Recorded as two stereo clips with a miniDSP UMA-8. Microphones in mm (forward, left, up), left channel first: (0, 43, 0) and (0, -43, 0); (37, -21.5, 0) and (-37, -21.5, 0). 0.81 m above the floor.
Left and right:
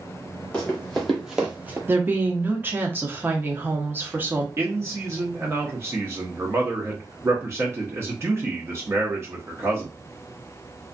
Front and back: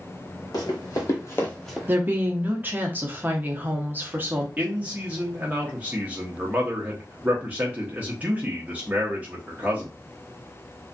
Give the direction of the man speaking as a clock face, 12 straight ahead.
4 o'clock.